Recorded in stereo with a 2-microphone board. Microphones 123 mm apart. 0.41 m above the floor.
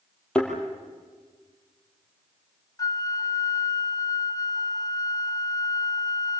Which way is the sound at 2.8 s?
30° left (ahead or behind).